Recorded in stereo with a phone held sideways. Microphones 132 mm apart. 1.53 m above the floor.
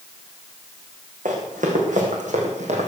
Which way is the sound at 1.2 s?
75° right (ahead or behind).